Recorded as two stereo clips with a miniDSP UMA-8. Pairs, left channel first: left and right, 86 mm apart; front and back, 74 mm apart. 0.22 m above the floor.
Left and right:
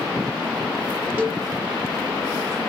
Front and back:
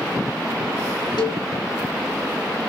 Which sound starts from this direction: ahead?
A cowbell, at 1.2 s.